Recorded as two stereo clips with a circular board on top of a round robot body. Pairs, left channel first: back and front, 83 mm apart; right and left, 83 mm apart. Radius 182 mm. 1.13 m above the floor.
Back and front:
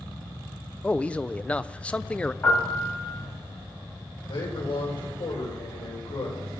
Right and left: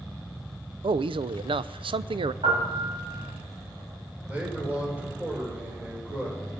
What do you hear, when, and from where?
0.8 s a man speaking: 105° left, 0.6 m
2.4 s a piano: 115° left, 4.5 m
4.3 s a man speaking: 160° left, 5 m